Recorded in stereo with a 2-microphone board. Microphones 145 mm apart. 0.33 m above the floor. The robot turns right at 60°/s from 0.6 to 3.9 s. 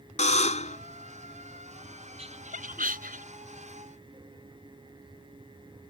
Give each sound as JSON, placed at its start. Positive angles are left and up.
{"t": 0.2, "sound": "a buzzer", "side_deg": 55}
{"t": 2.2, "sound": "laughter", "side_deg": -45}